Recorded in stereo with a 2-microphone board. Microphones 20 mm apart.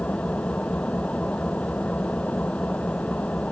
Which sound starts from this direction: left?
An engine running, at 0.0 s.